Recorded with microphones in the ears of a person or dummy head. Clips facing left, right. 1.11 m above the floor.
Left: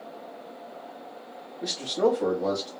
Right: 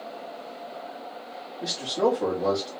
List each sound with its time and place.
1.6 s a man speaking: centre (ahead or behind), 1.1 m